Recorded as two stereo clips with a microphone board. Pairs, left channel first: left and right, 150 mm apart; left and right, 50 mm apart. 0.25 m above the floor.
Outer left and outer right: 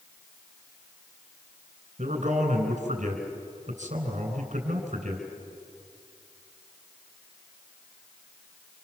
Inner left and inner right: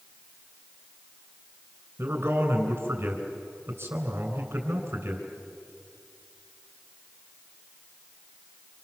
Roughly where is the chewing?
No chewing in this recording.